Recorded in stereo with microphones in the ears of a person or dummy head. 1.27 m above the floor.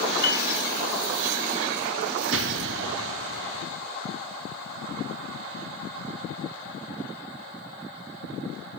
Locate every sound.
0.2 s a piano: 55° left (ahead or behind), 2.5 m
2.3 s an explosion: 70° right (ahead or behind), 0.8 m